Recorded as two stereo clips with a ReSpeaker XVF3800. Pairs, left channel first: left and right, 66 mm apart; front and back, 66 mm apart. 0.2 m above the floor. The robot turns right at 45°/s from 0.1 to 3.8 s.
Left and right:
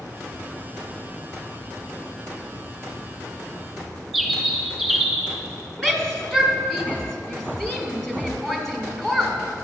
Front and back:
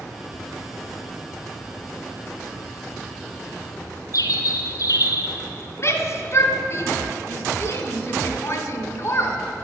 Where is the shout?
5° left, 1.5 m.